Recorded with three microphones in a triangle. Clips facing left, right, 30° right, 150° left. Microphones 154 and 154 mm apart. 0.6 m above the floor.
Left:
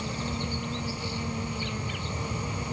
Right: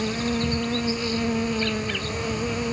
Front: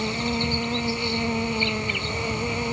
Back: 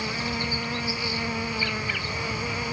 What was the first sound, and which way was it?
An insect, 100° right.